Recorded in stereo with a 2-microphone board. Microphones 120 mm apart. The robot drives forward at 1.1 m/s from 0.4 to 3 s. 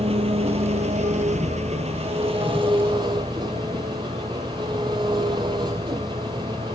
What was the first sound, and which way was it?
An engine running, 55° right (ahead or behind).